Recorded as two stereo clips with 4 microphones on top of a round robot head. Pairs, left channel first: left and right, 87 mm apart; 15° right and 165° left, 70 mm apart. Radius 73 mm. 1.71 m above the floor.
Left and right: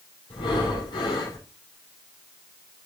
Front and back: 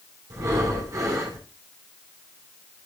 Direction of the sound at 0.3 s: 120° left.